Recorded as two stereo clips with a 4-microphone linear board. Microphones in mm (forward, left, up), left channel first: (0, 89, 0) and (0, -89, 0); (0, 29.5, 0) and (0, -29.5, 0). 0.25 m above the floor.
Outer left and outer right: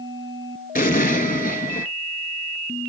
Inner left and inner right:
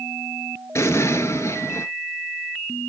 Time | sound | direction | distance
0.8 | an explosion | 55° left (ahead or behind) | 0.9 m